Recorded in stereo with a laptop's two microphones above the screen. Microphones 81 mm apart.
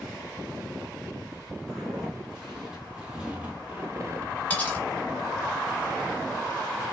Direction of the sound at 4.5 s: 15° left (ahead or behind).